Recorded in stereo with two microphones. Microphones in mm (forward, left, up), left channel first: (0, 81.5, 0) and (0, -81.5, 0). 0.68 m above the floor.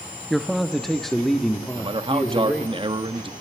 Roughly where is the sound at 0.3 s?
Centre.